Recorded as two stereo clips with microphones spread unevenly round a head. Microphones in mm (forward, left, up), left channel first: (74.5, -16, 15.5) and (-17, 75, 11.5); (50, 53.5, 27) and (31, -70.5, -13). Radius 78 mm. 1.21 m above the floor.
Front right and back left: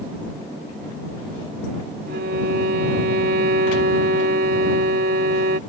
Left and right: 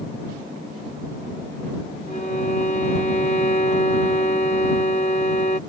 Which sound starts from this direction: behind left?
A violin, at 2.1 s.